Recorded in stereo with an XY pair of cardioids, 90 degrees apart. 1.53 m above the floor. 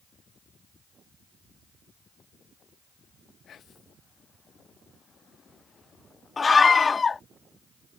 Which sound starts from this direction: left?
Whispering, at 3.5 s.